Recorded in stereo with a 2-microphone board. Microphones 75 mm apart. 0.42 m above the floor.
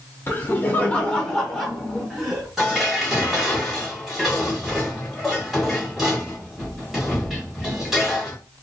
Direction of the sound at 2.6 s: 5° right (ahead or behind).